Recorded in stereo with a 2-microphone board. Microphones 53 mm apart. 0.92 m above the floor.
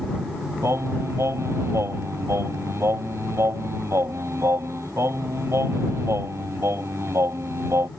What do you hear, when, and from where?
0.6 s singing: 60° right (ahead or behind)